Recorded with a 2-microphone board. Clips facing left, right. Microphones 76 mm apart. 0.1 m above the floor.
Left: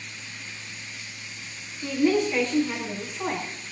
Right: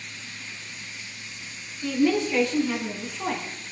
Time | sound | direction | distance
1.8 | a woman speaking | 5° left (ahead or behind) | 5.5 m